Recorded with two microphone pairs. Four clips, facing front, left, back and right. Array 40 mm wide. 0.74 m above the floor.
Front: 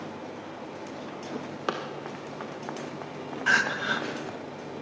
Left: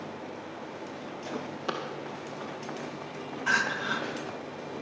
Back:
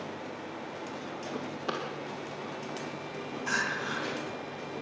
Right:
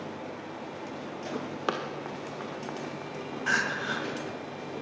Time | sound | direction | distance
1.7 | running footsteps | 50° right | 2 m
3.5 | crying | 5° right | 1.8 m